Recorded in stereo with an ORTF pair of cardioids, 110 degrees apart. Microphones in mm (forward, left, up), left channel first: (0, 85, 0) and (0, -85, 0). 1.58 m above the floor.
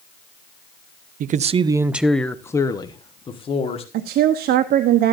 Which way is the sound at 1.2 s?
55° right.